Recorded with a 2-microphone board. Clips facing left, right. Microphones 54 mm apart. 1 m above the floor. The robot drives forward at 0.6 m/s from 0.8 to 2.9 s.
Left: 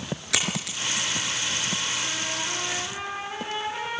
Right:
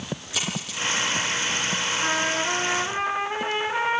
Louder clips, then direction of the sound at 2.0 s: Right 7 dB; 50° right (ahead or behind).